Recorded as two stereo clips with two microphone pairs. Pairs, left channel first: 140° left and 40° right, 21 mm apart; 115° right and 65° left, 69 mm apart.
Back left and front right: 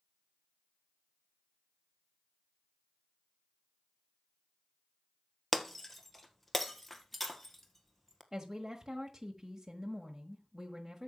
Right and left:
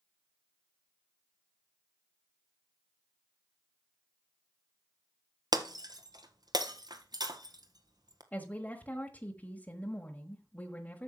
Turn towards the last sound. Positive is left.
turn(degrees=-85)